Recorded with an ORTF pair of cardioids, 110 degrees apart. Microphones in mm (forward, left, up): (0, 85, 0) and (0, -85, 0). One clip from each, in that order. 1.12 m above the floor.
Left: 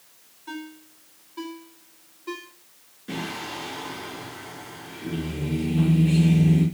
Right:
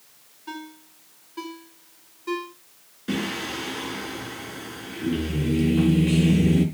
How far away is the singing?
About 6.5 m.